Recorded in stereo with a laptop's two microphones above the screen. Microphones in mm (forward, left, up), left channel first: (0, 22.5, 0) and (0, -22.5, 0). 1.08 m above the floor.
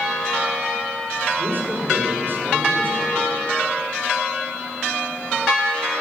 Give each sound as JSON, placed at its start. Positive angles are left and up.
{"t": 1.4, "sound": "a man speaking", "side_deg": -50, "distance_m": 4.5}